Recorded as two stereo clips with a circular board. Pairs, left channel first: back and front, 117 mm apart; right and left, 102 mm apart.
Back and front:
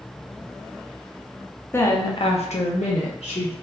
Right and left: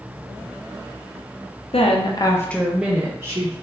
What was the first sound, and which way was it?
A woman speaking, 110° right.